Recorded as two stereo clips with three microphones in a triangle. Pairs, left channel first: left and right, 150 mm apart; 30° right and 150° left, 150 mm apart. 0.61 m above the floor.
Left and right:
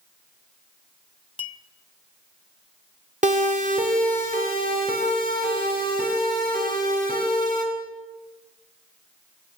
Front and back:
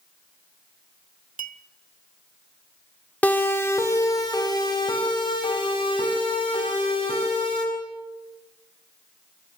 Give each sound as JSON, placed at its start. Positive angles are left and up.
{"t": 1.4, "sound": "a clink", "azimuth_deg": 140, "distance_m": 1.1}
{"t": 3.2, "sound": "a siren", "azimuth_deg": -110, "distance_m": 2.5}